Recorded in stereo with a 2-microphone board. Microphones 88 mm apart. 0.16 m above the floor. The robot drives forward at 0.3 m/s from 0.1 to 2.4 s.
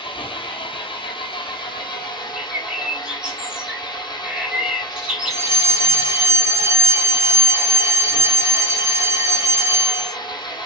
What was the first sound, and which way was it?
An engine running, 80° left.